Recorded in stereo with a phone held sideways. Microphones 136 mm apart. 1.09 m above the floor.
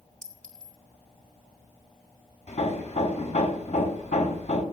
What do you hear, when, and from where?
0.2 s a clink: 85° right, 1.5 m
2.5 s hammering: 65° left (ahead or behind), 3.5 m